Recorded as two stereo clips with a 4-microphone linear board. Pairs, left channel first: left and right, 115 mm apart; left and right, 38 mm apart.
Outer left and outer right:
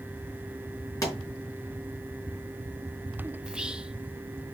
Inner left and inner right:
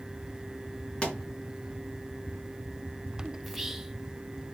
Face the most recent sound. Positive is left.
turn(degrees=-10)  # may be behind; listen again after turning